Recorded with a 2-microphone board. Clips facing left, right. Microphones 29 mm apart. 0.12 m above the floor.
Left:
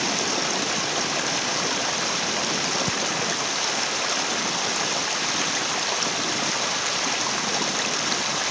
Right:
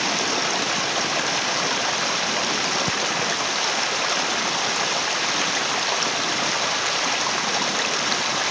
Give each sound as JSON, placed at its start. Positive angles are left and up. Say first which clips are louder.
{"t": 0.0, "sound": "running water", "louder": "right 2 dB", "side_deg": -10}